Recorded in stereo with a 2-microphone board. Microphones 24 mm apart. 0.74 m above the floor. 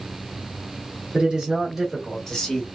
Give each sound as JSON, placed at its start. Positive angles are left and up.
{"t": 1.1, "sound": "a man speaking", "side_deg": -40, "distance_m": 1.3}